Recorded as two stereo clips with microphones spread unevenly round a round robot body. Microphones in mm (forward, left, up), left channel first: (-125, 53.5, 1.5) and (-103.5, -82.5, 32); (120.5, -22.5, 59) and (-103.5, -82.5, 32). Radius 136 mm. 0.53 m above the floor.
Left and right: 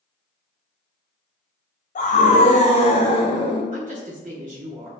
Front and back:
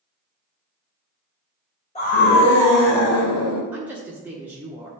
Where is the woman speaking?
90° right, 1.4 m.